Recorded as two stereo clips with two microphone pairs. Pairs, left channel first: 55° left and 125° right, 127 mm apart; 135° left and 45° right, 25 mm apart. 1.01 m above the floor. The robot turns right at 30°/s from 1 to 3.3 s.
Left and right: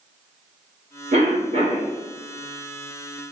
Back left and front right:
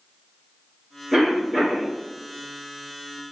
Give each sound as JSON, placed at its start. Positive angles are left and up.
{"t": 1.1, "sound": "a cough", "azimuth_deg": -125, "distance_m": 2.0}